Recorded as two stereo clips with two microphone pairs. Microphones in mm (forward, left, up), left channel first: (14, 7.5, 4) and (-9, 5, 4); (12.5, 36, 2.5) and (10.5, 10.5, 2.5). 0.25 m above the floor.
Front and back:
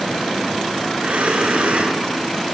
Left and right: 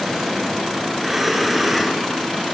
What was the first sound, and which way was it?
Breathing, straight behind.